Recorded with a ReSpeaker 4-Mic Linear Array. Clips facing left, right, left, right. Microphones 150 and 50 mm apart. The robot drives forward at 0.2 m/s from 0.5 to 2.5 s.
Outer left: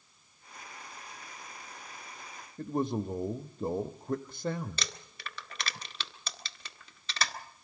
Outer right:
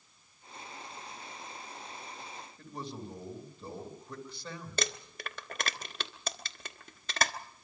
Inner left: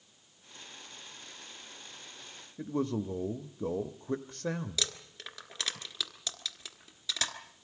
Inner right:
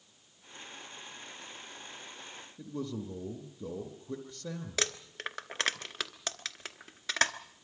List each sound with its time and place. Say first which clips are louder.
2.6 s a man speaking: outer left 12 dB, inner left 6 dB; 50° left (ahead or behind), 0.9 m
4.8 s crumpling: outer right 6 dB, inner right 4 dB; 50° right (ahead or behind), 1.2 m